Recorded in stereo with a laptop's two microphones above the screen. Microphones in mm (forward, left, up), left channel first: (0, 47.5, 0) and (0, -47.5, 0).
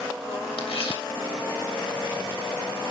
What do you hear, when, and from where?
0.6 s tearing paper: 75° left (ahead or behind), 3 m